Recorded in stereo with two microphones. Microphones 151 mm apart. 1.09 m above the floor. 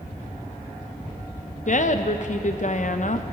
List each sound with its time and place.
1.7 s a woman speaking: 55° left (ahead or behind), 0.6 m